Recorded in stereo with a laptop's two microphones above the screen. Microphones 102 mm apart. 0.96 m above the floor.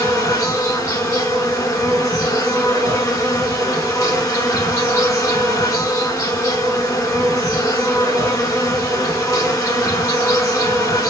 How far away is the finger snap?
No finger snap in this recording.